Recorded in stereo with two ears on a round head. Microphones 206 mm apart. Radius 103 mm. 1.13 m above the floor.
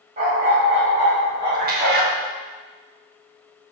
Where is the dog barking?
40° right (ahead or behind), 3 m; by 2.1 s 10° right (ahead or behind), 3.5 m.